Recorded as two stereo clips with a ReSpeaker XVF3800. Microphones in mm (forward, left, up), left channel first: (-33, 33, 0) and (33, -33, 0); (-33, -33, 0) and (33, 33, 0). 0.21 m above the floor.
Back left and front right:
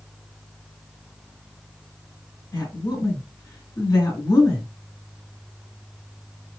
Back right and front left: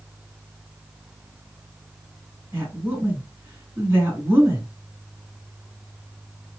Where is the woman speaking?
100° left, 1.9 m.